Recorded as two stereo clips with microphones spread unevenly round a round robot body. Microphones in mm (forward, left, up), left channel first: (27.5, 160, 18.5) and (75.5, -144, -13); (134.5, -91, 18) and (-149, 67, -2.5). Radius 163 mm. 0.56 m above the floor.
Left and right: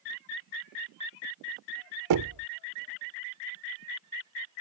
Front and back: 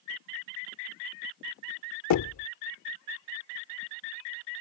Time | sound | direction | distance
2.1 | knocking | 65° right | ?